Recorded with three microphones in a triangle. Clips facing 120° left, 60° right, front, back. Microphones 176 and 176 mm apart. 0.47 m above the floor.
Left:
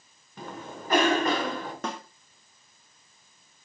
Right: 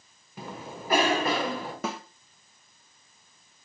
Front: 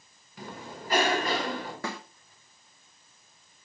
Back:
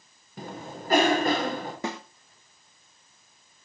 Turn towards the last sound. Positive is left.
turn(degrees=-140)